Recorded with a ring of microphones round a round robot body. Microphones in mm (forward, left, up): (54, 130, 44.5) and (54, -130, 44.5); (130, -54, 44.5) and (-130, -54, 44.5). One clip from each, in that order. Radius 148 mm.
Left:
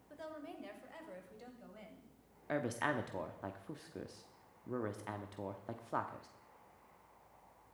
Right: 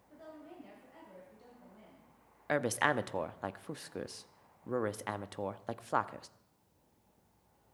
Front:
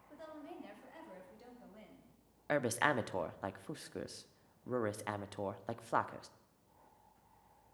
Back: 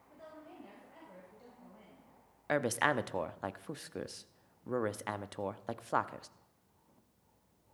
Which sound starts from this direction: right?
A woman speaking, at 2.5 s.